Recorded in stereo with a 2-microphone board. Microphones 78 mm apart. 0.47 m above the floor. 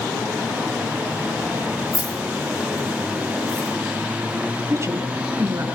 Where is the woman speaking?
40° right (ahead or behind), 4.5 m.